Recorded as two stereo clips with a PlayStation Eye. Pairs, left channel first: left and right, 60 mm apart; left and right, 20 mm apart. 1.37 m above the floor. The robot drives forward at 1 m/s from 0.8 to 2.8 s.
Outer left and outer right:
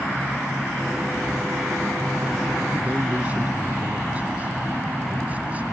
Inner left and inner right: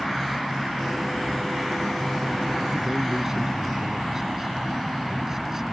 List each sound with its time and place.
2.7 s a man speaking: 25° right (ahead or behind)